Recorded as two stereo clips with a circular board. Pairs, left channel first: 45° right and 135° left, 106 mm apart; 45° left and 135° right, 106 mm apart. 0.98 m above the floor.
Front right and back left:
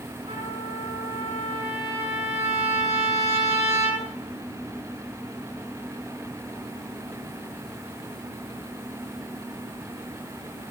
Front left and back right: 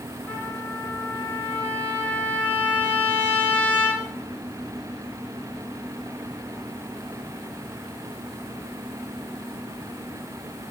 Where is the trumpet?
120° left, 5.5 m.